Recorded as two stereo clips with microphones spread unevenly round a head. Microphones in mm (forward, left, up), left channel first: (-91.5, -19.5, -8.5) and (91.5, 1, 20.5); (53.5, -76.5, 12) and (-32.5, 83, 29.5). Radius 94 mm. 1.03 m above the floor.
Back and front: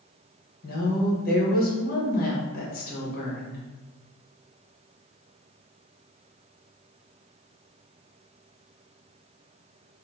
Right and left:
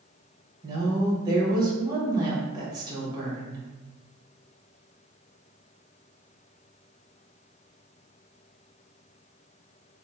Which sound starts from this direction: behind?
A woman speaking, at 0.6 s.